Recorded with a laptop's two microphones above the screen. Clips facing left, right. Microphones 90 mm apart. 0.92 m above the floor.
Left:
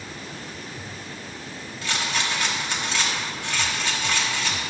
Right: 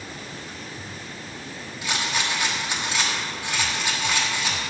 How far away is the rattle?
About 1.0 m.